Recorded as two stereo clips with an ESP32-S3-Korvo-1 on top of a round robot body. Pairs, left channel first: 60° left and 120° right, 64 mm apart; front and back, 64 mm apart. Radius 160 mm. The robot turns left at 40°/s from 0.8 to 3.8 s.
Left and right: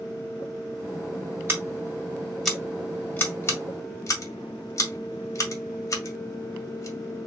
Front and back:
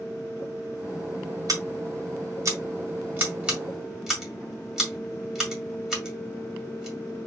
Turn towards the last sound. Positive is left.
turn(degrees=95)